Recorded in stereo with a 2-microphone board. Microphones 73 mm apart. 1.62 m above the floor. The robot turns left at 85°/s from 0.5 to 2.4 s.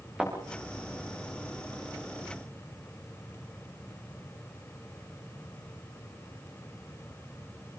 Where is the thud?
15° right (ahead or behind), 8.5 m.